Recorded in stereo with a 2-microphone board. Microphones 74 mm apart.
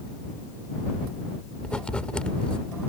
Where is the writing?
10° left (ahead or behind).